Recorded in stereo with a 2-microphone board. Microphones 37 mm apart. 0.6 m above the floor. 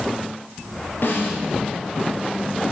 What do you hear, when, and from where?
1.0 s a snare drum: 70° left (ahead or behind), 7 m